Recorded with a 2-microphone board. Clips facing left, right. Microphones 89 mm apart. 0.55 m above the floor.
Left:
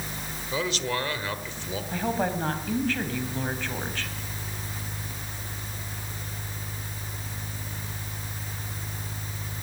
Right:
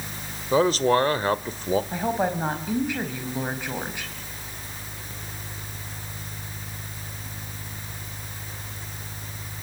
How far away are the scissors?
I don't hear scissors.